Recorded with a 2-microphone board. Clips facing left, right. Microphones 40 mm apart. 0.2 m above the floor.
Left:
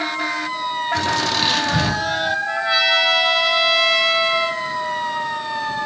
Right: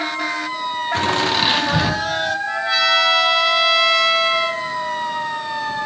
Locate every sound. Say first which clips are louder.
0.9 s laughter: right 3 dB; 35° right (ahead or behind), 1.9 m; by 2.4 s 10° left (ahead or behind), 1.5 m
2.5 s a trumpet: right 1 dB; 5° left (ahead or behind), 2.0 m